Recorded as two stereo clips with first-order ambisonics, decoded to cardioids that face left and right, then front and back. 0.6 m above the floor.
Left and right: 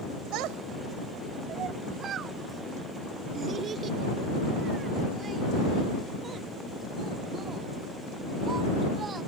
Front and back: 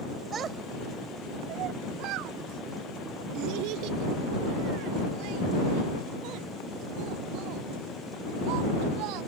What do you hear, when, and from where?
0.3 s a child speaking: 115° right; by 9.2 s 160° right